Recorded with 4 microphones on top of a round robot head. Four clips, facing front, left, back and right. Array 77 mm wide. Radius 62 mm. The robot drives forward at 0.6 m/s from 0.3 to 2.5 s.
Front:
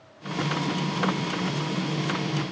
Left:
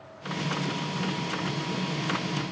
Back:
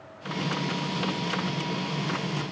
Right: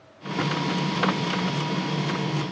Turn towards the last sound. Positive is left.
No sound to turn to.